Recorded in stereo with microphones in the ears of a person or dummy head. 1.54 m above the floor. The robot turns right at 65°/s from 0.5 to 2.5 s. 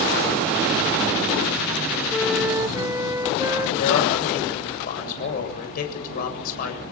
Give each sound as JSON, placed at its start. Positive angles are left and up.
{"t": 2.1, "sound": "a flute", "side_deg": 15, "distance_m": 0.7}
{"t": 3.8, "sound": "a man speaking", "side_deg": 50, "distance_m": 7.5}